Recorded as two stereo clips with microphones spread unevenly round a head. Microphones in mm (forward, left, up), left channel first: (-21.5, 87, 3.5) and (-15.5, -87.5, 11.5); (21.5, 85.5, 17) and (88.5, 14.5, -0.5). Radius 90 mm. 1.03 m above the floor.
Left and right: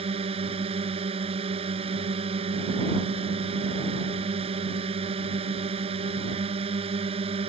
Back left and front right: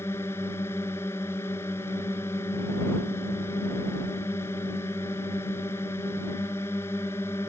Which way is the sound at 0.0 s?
150° right.